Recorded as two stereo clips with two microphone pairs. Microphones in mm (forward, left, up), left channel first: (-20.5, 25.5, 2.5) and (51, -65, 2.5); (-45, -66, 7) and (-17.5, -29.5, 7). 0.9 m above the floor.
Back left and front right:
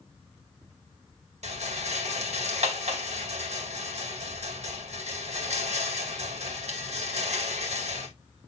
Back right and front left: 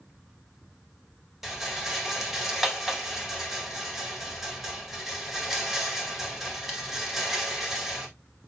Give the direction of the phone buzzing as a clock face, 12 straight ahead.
No phone buzzing in this recording.